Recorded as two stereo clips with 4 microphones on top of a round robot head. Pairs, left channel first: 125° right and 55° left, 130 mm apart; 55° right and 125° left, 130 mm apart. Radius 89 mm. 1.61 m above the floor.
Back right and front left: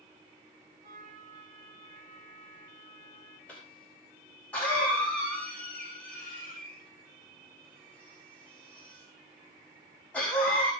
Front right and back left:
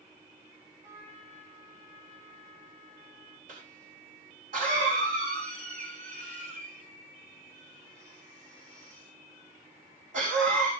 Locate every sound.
0.8 s a trumpet: 90° left, 3.5 m
3.5 s a cough: 155° left, 3 m